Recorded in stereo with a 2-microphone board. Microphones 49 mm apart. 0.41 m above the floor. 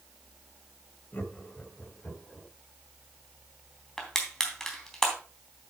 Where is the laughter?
40° left (ahead or behind), 2.5 m; by 2.5 s 25° left (ahead or behind), 3.5 m.